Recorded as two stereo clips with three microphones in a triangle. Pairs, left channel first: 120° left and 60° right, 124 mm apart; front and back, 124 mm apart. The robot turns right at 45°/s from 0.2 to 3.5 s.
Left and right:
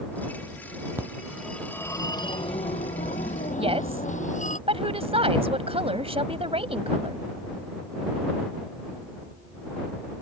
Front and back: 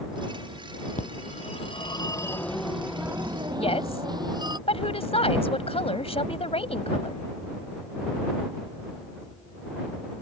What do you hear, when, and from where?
1.0 s a phone ringing: 10° left; by 4.6 s 125° left
3.6 s a woman speaking: 30° right